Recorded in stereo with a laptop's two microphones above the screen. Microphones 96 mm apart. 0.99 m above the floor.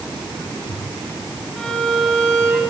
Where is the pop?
I don't hear a pop.